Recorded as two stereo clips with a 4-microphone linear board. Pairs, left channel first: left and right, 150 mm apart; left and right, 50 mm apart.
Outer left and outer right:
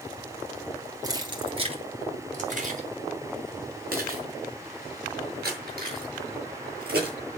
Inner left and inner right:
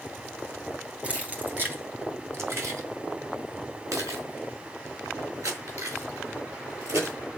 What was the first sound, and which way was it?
Keys jangling, 25° right (ahead or behind).